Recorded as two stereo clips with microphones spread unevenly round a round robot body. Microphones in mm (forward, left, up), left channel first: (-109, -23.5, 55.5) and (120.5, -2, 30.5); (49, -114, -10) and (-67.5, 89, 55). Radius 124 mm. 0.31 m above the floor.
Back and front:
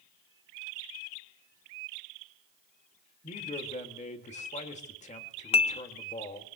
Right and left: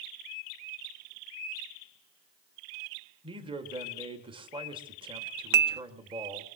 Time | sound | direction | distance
3.2 | a man speaking | 165° right | 1.6 m
5.5 | dishes clattering | 145° left | 0.6 m